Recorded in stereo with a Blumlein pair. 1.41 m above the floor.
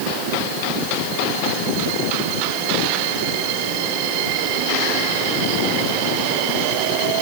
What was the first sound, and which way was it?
Only background noise.